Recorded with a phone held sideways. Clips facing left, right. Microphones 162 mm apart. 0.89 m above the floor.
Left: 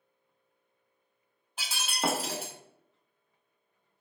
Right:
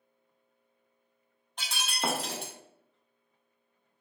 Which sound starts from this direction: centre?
Breaking glass, at 1.6 s.